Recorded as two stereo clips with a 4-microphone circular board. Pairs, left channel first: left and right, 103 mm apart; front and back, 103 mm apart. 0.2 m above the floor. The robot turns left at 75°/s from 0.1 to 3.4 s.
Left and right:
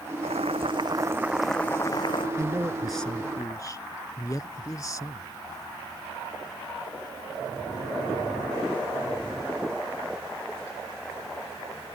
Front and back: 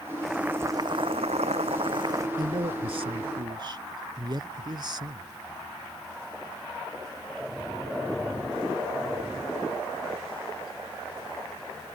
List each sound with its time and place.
0.2 s boiling: 90° right; by 2.3 s 120° left
2.4 s a man speaking: 140° right; by 5.3 s 140° left